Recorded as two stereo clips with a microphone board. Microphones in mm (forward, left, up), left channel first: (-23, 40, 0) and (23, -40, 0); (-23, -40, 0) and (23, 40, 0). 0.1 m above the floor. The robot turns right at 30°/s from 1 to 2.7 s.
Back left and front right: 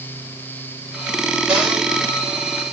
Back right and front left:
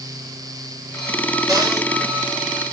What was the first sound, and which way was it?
A cupboard door, 20° left.